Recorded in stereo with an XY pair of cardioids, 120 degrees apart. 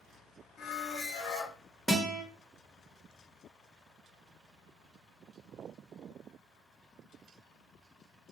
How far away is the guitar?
About 1.0 m.